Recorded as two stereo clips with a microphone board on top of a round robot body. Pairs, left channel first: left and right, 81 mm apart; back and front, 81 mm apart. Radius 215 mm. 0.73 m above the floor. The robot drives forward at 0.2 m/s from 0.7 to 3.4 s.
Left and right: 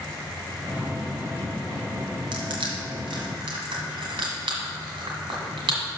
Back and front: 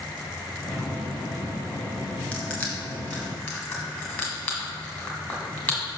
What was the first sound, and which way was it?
Crushing, 105° right.